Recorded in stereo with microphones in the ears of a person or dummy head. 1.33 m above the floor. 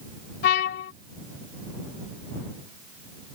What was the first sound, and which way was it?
A trumpet, 60° left (ahead or behind).